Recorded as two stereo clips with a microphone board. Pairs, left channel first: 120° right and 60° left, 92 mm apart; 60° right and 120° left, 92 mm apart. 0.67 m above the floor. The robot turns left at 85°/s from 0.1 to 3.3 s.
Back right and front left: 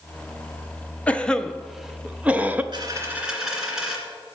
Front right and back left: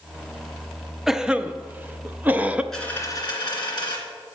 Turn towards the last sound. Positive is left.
turn(degrees=-25)